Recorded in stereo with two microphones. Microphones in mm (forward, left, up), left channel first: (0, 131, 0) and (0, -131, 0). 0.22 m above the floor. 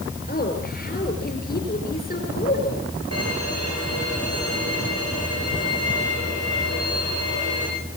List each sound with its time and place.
0.3 s a woman speaking: 35° left (ahead or behind), 5 m
3.1 s a violin: 70° right (ahead or behind), 9.5 m